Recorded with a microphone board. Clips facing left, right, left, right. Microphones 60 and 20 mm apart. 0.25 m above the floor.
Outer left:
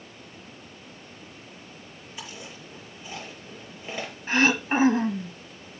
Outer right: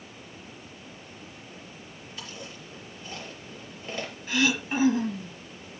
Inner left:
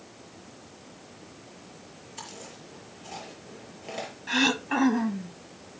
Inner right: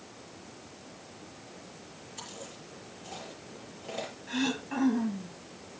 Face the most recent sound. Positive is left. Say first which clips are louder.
# outer left 4 dB, inner left 8 dB
turn(degrees=40)  # may be behind; listen again after turning